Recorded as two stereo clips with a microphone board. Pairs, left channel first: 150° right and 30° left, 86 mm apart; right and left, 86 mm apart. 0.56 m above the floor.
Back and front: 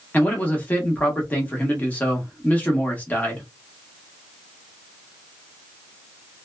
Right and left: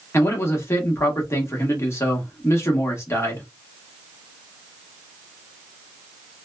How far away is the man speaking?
About 1.0 m.